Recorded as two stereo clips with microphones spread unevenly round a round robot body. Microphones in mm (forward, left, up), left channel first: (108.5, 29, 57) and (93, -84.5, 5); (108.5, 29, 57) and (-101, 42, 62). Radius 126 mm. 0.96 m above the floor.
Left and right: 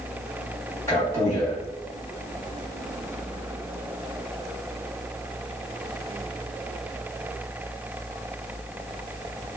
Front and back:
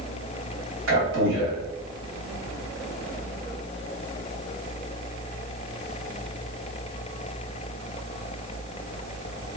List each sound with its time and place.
0.9 s a man speaking: 155° left, 1.3 m